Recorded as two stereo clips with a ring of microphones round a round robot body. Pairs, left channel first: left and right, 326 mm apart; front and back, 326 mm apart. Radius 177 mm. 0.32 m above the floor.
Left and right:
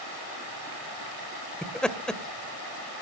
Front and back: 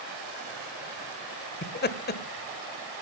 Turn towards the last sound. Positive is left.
turn(degrees=5)